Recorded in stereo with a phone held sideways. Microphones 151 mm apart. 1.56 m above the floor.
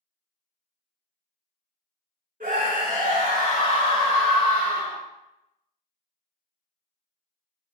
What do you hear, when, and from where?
2.4 s a scream: 65° right (ahead or behind), 1.9 m; by 5.0 s 20° right (ahead or behind), 1.3 m